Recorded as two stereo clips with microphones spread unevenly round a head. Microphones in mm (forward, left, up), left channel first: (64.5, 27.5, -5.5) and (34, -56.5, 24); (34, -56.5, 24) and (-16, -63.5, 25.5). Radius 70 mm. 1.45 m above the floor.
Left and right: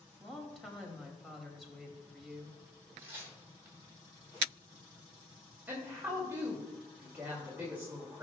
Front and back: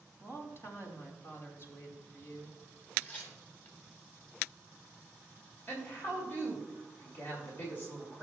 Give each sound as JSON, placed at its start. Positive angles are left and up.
{"t": 0.2, "sound": "a woman speaking", "azimuth_deg": -20, "distance_m": 3.0}
{"t": 3.0, "sound": "tearing paper", "azimuth_deg": -50, "distance_m": 3.5}
{"t": 5.7, "sound": "a woman speaking", "azimuth_deg": -35, "distance_m": 2.5}